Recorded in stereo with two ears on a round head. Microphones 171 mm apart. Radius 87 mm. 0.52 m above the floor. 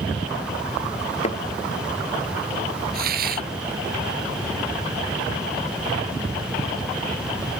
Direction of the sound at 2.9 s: 55° right (ahead or behind).